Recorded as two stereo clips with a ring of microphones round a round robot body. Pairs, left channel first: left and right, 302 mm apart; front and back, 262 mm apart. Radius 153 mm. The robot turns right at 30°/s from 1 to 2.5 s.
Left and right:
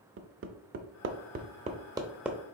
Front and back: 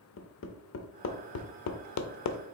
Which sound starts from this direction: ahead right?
Hammering, at 0.2 s.